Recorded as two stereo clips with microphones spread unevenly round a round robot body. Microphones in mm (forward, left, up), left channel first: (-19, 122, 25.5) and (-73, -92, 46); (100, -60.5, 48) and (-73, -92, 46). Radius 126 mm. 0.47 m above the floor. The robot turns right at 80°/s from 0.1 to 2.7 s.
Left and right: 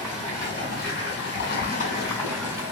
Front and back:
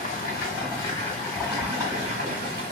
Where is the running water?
15° right, 1.7 m; by 2.7 s 170° right, 1.7 m.